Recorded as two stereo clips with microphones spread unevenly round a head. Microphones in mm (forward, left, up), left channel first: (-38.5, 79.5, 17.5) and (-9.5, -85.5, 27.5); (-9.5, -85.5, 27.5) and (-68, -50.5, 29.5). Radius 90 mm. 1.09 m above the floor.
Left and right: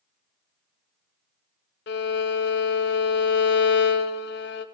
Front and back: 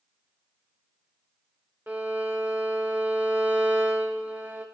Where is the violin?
70° left, 0.6 m.